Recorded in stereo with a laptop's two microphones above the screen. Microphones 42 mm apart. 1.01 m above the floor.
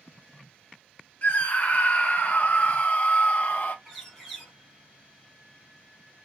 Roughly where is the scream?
Left.